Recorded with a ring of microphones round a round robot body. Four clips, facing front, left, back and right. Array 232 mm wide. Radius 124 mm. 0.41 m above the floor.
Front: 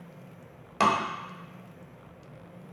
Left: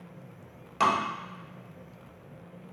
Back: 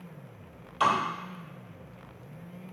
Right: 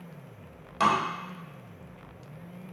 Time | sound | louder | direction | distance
0.8 | tapping | right 1 dB, front 1 dB | straight ahead | 1.4 m